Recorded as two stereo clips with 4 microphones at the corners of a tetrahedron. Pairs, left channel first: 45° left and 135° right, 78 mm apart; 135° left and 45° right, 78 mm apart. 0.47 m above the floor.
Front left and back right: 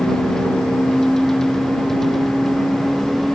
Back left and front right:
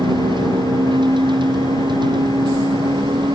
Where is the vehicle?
35° right; by 3.4 s 45° right.